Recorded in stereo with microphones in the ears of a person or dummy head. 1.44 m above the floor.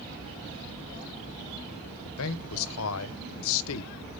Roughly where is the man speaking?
Left.